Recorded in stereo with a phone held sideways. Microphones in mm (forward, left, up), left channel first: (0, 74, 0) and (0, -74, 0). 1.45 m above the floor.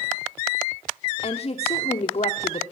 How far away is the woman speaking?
About 0.9 m.